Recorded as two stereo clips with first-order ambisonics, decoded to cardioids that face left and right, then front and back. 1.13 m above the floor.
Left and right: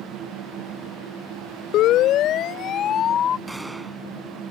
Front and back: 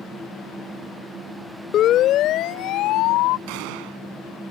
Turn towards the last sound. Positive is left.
turn(degrees=-175)